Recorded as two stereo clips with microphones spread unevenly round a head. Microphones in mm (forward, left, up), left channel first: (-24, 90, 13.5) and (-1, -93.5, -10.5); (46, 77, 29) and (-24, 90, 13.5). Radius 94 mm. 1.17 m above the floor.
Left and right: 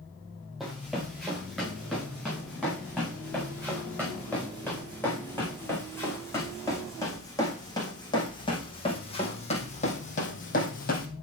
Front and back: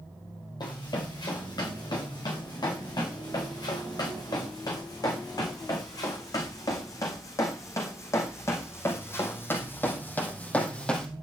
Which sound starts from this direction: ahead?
Running footsteps, at 0.6 s.